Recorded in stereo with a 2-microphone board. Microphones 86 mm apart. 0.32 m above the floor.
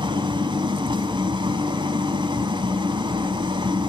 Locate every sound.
0.0 s an engine running: 70° right (ahead or behind), 1.0 m